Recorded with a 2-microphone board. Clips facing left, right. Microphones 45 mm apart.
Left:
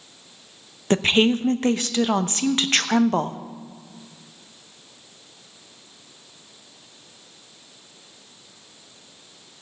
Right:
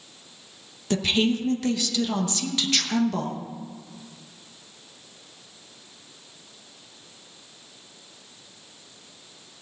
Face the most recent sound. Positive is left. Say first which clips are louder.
# left 5 dB
turn(degrees=45)  # may be behind; listen again after turning